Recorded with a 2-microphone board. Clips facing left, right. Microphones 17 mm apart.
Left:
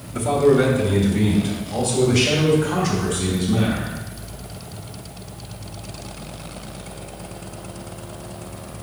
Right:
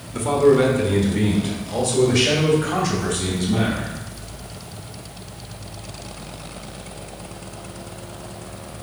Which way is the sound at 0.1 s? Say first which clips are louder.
Right 1 dB; 20° right (ahead or behind).